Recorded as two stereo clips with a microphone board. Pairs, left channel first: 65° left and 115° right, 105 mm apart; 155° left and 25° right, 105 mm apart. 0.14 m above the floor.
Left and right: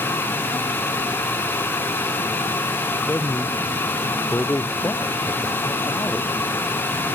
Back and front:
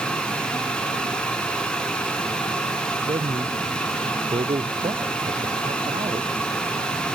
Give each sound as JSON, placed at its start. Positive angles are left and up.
{"t": 3.1, "sound": "a man speaking", "azimuth_deg": 0}